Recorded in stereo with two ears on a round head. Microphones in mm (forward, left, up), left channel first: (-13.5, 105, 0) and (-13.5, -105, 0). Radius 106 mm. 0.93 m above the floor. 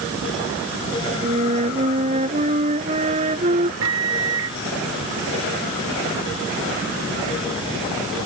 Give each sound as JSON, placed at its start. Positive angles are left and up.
{"t": 1.2, "sound": "a flute", "side_deg": -30}
{"t": 3.8, "sound": "a microwave", "side_deg": -80}